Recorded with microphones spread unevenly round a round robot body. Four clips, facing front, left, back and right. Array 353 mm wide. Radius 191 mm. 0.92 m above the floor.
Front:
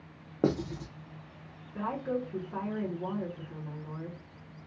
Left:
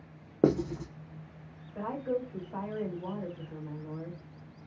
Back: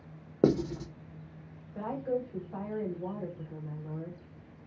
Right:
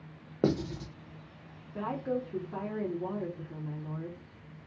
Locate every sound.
0.4 s writing: 120° left, 0.7 m
1.8 s a woman speaking: 75° right, 1.4 m